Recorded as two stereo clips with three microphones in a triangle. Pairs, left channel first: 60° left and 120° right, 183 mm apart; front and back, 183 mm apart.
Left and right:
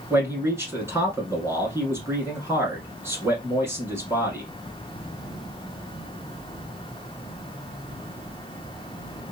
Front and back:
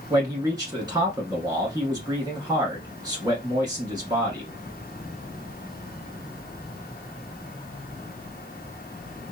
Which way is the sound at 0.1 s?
165° right.